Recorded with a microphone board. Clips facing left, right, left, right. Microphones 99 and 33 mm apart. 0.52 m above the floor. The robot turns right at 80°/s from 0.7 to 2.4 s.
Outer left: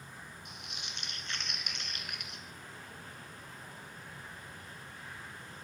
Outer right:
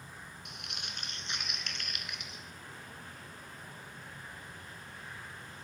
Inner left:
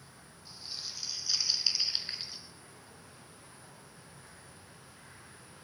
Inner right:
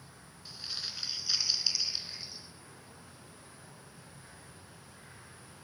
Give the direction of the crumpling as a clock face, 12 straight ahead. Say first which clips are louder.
Outer right 1 dB, inner right 3 dB; 2 o'clock.